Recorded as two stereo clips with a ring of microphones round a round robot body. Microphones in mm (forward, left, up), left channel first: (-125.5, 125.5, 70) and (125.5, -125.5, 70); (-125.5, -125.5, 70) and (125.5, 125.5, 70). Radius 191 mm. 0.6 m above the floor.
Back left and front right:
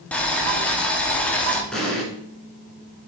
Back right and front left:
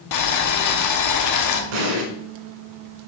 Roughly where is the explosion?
Ahead left.